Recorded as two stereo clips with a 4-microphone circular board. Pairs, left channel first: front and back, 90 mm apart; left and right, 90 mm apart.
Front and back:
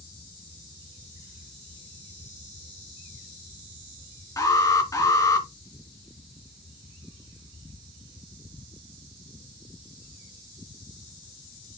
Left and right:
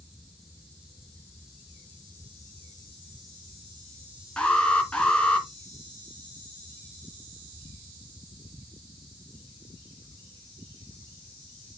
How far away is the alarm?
About 2.5 m.